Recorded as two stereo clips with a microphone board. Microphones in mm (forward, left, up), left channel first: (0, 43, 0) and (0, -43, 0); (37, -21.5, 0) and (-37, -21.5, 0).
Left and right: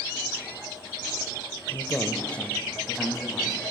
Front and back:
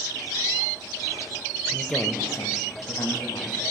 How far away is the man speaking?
About 0.9 m.